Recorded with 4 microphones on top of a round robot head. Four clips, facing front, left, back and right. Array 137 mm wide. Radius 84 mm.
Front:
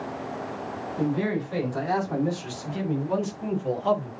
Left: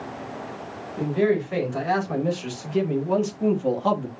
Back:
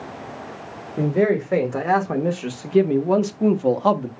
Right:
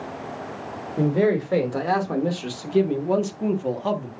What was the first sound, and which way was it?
A man speaking, 145° right.